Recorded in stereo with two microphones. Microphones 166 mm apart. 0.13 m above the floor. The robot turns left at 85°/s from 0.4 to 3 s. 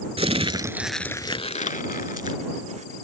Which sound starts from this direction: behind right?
Crumpling, at 0.2 s.